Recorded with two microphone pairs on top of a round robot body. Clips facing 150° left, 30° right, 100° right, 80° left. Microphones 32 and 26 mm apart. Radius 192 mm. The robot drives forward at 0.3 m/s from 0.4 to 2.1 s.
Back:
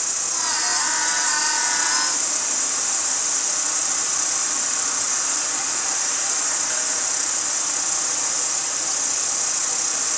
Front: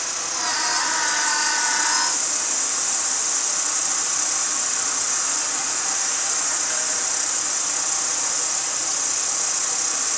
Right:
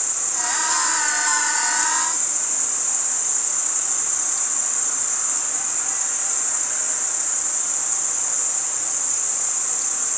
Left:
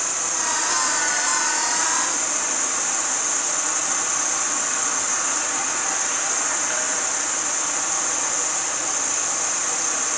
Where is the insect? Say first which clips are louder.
Front 2 dB, left 3 dB; 45° left, 1.8 m; by 10.2 s 70° left, 1.6 m.